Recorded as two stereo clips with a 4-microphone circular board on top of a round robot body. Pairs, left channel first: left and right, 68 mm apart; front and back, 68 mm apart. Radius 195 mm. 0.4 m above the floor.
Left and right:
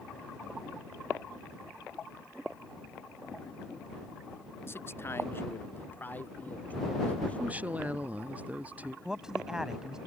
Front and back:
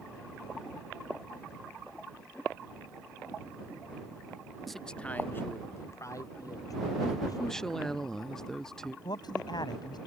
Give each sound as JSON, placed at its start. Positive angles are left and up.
{"t": 4.7, "sound": "a man speaking", "azimuth_deg": 90}
{"t": 7.4, "sound": "a woman speaking", "azimuth_deg": -70}
{"t": 9.1, "sound": "a man speaking", "azimuth_deg": -10}